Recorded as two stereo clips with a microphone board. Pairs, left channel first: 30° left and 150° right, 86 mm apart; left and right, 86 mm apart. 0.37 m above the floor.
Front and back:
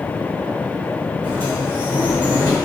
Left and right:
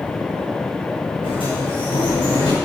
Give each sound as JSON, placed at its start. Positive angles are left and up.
{"t": 1.2, "sound": "a sliding door", "azimuth_deg": 90, "distance_m": 6.5}